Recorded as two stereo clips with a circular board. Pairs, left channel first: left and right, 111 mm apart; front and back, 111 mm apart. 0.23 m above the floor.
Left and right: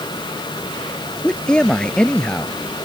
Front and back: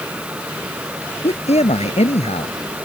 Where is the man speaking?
10° left.